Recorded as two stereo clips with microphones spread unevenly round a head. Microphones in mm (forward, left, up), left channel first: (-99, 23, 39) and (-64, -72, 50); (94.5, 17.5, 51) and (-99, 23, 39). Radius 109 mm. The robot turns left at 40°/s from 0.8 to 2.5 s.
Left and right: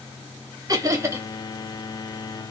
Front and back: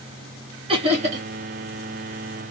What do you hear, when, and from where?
0.7 s laughter: 125° right, 1.4 m; by 1.3 s 145° right, 1.4 m